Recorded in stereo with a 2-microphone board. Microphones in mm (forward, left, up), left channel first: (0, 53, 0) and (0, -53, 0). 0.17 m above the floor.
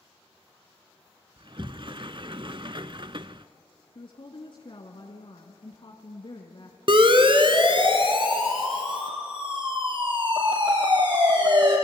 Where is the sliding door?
50° right (ahead or behind), 0.6 m.